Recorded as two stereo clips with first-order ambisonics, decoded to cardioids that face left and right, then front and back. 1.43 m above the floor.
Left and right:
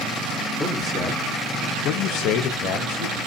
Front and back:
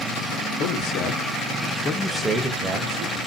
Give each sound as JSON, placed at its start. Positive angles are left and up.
{"t": 0.6, "sound": "a man speaking", "azimuth_deg": 5, "distance_m": 0.9}